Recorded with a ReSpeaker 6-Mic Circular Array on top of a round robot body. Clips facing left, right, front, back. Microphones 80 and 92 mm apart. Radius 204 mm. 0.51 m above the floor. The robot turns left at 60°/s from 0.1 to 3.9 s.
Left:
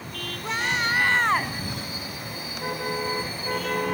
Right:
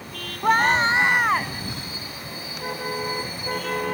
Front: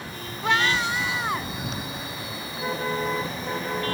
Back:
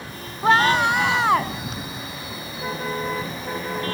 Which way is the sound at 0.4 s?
120° right.